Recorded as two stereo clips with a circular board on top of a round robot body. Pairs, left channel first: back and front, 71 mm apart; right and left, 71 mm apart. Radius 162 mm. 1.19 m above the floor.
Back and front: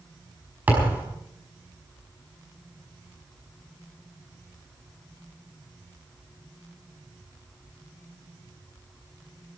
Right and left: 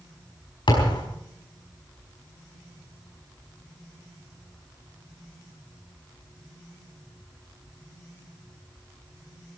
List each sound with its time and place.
0.7 s a thud: 70° right, 5 m